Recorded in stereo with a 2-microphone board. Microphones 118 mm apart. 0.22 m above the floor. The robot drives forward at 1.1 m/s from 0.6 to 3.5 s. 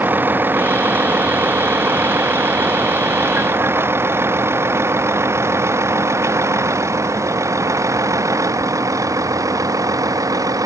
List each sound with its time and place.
0.0 s a vehicle: 15° right (ahead or behind); by 10.7 s 30° right (ahead or behind)